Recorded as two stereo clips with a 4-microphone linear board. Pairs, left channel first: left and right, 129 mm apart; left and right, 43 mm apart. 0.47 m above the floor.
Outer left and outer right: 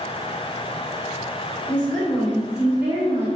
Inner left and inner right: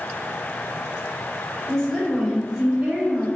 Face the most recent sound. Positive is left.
turn(degrees=-25)  # may be behind; listen again after turning